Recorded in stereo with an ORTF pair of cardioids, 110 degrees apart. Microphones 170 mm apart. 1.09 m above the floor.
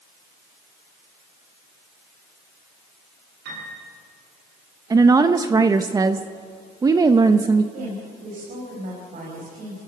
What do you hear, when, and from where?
3.5 s a piano: 70° right, 9 m
4.9 s a woman speaking: 20° right, 0.8 m
7.7 s a woman speaking: 55° right, 5.5 m